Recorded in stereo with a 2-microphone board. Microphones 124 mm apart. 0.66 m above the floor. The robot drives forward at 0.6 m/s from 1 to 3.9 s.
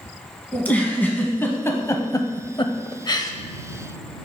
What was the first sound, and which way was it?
A giggle, 15° left (ahead or behind).